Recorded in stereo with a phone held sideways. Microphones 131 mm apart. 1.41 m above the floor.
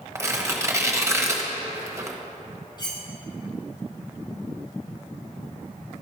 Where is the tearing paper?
20° right (ahead or behind), 0.9 m.